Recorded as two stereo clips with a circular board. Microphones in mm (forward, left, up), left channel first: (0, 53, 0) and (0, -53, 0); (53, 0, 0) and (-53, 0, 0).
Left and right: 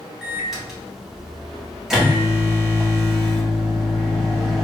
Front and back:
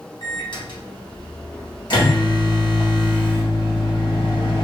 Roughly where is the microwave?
Ahead.